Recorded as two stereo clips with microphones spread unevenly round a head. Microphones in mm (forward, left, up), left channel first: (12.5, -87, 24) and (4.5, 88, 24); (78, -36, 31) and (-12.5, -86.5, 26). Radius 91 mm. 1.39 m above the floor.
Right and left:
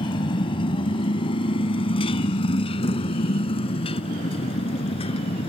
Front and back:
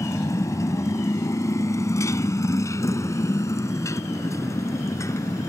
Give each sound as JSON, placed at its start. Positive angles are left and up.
{"t": 0.0, "sound": "a motorcycle", "azimuth_deg": -25}